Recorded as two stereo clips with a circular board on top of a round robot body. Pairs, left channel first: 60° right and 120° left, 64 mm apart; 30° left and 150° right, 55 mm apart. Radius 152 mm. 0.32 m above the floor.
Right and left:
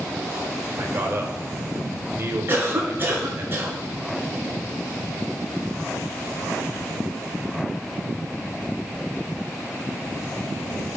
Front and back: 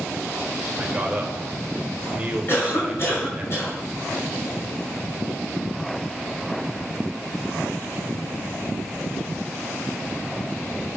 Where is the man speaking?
150° left, 1.8 m.